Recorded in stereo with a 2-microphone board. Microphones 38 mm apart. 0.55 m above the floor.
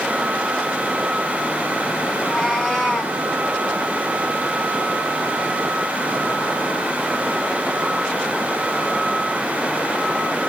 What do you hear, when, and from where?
2.1 s a cat meowing: 5° left (ahead or behind), 2 m